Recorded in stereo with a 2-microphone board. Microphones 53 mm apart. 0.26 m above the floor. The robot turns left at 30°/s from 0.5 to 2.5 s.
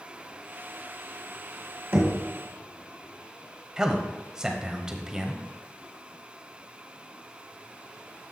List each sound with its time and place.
1.9 s knocking: 45° right (ahead or behind), 1.7 m
3.8 s a man speaking: 10° right (ahead or behind), 1.0 m